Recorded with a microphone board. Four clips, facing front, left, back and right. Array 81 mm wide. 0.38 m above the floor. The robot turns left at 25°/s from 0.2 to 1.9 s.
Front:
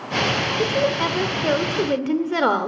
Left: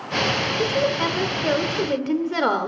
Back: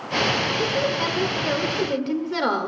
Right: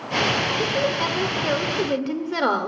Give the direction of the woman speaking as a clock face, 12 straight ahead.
11 o'clock.